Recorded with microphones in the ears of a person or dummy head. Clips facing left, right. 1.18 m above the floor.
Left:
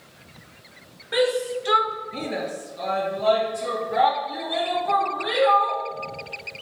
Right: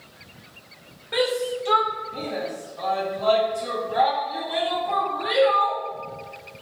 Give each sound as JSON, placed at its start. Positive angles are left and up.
{"t": 1.1, "sound": "a shout", "side_deg": 10, "distance_m": 0.7}